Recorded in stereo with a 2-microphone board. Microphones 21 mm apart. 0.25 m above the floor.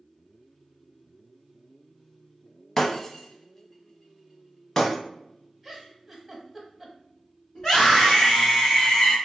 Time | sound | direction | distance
2.8 | breaking glass | 20° left (ahead or behind) | 0.6 m
5.6 | a giggle | 5° right (ahead or behind) | 0.8 m
7.5 | a scream | 30° left (ahead or behind) | 1.7 m